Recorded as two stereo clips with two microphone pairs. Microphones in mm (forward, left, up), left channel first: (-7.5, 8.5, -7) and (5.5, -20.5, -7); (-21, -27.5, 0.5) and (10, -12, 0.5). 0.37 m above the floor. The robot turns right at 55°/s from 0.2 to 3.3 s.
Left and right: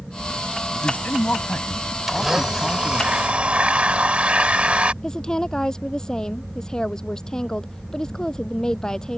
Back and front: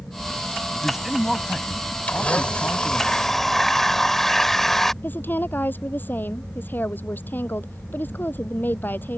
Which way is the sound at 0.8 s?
90° left.